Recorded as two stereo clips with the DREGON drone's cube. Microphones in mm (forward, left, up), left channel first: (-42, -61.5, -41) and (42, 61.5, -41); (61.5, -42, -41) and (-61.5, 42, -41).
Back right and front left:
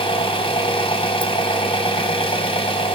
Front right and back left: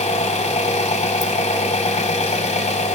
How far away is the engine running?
About 1.5 m.